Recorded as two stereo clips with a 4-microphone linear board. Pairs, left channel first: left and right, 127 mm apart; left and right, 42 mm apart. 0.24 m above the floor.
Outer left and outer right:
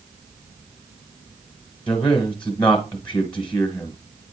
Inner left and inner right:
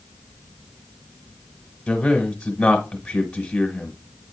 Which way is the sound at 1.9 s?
10° left (ahead or behind).